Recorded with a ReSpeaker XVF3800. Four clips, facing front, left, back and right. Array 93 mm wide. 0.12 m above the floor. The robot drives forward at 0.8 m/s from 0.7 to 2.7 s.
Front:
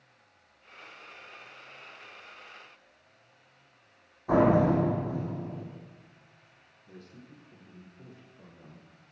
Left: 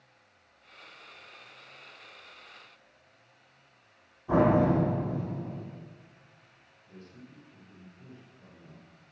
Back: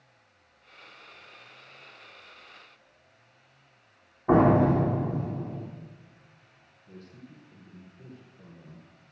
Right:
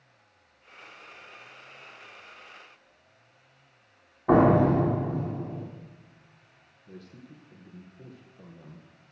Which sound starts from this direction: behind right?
A door slam, at 4.3 s.